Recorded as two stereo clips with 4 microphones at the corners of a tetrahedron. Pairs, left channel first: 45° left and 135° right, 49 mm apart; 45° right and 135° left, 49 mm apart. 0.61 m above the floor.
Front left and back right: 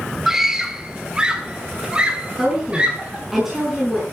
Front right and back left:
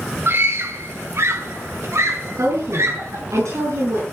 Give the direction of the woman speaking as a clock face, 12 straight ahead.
7 o'clock.